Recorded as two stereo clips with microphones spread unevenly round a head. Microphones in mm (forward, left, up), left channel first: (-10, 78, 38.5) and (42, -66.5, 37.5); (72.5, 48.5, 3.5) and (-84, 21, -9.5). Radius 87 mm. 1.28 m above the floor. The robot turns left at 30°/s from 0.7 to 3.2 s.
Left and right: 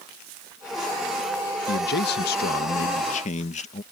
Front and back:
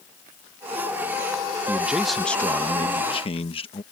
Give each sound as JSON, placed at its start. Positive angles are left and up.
{"t": 1.7, "sound": "a man speaking", "azimuth_deg": 110}